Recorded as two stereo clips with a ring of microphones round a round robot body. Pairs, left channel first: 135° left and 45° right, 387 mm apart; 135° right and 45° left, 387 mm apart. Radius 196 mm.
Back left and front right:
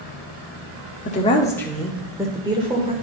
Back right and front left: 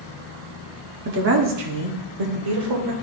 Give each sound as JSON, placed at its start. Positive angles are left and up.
{"t": 1.1, "sound": "a woman speaking", "azimuth_deg": 85, "distance_m": 1.0}